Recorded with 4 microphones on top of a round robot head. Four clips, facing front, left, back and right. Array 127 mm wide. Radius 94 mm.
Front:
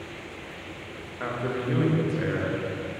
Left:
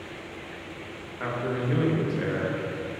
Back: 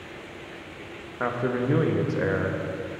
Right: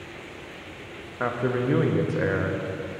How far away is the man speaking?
About 1.3 m.